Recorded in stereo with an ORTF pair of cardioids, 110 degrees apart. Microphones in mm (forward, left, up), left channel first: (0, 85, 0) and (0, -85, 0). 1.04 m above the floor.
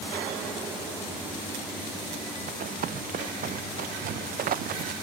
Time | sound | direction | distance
2.5 | running footsteps | 60° right | ?